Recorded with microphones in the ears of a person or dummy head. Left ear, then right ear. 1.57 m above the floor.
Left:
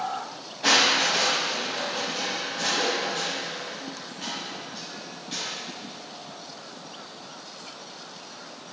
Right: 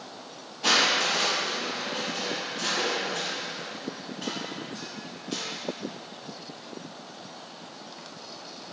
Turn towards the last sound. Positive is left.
turn(degrees=10)  # may be behind; listen again after turning